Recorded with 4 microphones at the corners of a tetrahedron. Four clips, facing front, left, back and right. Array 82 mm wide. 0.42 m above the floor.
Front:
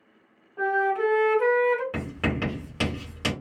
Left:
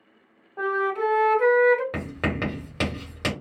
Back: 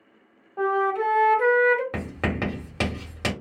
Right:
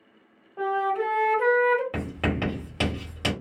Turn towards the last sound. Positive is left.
turn(degrees=145)